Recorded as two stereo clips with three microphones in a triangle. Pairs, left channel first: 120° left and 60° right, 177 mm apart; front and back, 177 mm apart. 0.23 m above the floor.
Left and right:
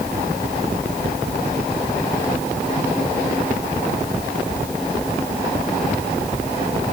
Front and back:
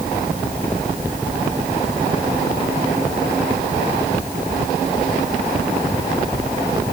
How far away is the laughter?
No laughter in this recording.